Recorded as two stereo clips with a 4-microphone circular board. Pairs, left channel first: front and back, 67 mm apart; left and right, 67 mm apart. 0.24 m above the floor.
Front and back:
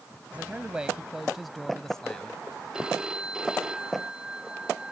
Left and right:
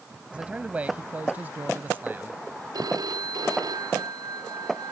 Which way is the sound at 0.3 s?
140° right.